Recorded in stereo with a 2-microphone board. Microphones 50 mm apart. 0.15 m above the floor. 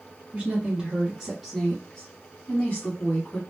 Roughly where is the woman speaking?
Right.